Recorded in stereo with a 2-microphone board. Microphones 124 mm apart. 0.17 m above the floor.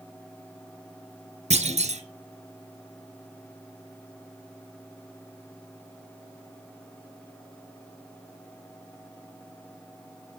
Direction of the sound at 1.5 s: 60° right (ahead or behind).